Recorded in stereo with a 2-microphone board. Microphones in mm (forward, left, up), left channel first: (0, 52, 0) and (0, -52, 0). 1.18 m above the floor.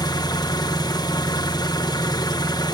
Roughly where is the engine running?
Left.